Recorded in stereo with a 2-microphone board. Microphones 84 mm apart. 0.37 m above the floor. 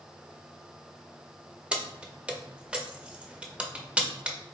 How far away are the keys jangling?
About 0.5 m.